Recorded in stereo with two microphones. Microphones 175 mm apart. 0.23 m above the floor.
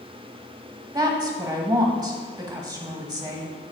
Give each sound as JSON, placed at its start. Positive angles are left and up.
{"t": 0.9, "sound": "a woman speaking", "side_deg": -20, "distance_m": 1.1}